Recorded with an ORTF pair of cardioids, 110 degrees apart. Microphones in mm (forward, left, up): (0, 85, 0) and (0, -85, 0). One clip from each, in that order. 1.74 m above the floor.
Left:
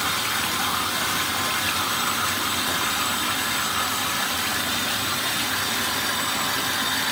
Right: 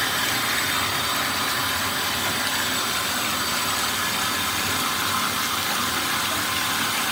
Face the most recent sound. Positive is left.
No sound to turn to.